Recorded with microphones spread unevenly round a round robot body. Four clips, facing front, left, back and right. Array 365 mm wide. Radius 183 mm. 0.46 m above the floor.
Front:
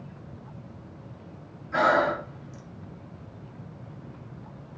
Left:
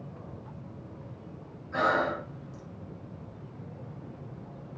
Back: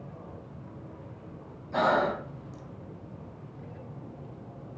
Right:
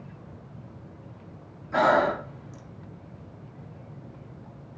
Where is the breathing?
110° right, 0.7 m.